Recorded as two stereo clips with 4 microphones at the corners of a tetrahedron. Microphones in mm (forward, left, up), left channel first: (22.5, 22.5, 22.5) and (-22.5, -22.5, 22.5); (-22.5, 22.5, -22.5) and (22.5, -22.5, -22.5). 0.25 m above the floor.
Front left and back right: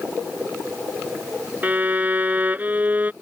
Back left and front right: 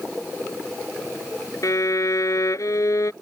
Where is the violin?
165° left.